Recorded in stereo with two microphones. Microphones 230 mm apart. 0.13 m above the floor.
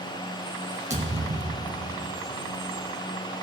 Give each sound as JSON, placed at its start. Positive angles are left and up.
{"t": 0.9, "sound": "a thud", "side_deg": -30, "distance_m": 2.5}